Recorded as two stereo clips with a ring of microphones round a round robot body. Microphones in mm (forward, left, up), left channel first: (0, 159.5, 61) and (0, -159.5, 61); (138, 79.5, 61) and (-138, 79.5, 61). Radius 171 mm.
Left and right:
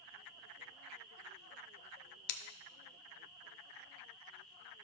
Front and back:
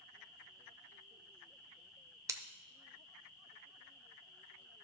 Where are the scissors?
100° left, 0.6 m.